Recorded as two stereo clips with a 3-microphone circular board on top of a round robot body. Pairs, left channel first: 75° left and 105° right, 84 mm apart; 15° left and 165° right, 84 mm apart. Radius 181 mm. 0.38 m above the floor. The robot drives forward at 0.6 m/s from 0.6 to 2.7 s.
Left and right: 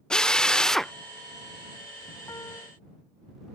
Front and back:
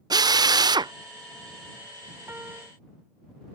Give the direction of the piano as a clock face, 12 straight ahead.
8 o'clock.